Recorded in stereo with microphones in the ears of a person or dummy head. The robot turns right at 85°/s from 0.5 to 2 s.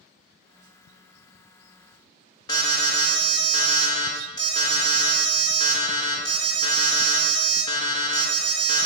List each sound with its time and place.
2.5 s an alarm: 25° left (ahead or behind), 1.6 m